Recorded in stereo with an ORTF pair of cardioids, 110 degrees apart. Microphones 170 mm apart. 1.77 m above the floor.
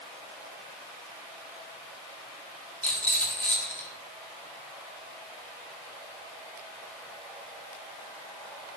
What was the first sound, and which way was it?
A rattle, 10° left.